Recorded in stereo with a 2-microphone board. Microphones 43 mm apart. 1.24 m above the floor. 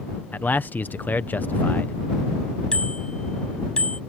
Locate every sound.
0.3 s a man speaking: 45° left (ahead or behind)
2.7 s a bicycle bell: 20° left (ahead or behind)